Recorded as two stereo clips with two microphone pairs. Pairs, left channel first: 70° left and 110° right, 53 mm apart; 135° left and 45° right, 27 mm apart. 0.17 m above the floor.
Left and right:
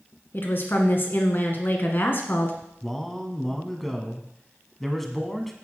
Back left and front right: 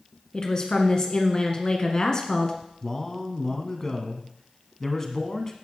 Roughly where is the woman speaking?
Left.